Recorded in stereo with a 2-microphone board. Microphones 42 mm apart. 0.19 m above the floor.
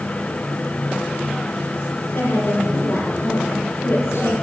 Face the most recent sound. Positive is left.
turn(degrees=80)